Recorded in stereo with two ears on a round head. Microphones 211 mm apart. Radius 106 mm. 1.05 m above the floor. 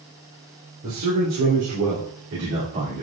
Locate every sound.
0.8 s a man speaking: 80° right, 4 m; by 3.0 s 50° right (ahead or behind), 3 m